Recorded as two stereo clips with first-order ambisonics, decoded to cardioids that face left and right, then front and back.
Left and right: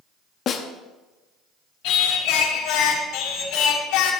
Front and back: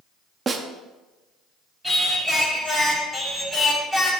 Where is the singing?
90° left, 2 m.